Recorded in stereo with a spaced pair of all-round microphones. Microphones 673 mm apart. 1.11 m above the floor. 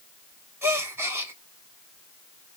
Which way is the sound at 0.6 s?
5° right (ahead or behind).